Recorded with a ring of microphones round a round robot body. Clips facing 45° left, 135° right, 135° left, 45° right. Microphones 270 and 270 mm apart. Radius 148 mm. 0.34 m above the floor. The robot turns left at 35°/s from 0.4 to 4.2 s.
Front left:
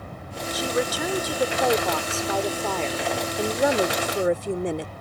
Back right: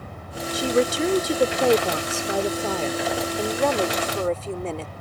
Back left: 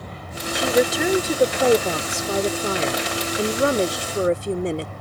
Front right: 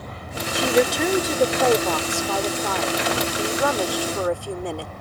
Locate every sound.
0.5 s a woman speaking: 130° right; by 4.9 s 100° left